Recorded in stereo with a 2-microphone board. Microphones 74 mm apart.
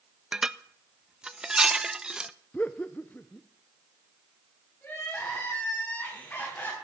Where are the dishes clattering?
10° right (ahead or behind), 0.5 m.